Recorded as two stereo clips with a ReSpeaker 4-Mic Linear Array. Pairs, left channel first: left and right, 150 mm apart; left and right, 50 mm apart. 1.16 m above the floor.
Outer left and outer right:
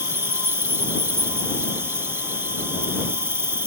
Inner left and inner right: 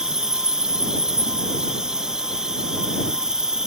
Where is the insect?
15° right (ahead or behind).